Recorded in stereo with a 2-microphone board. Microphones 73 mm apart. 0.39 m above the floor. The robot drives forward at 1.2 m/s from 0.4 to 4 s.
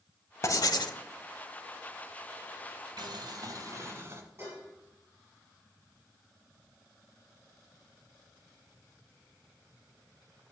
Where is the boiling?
75° right (ahead or behind), 0.9 m; by 4.2 s 35° right (ahead or behind), 1.5 m.